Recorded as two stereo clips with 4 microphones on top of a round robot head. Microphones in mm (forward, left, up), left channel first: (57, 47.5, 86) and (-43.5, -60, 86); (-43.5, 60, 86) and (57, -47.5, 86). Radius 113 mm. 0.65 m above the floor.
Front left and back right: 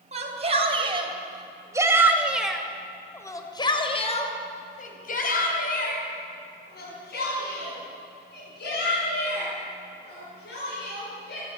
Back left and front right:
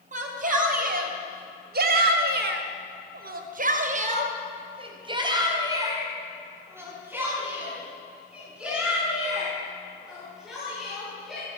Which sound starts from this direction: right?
A shout, at 0.1 s.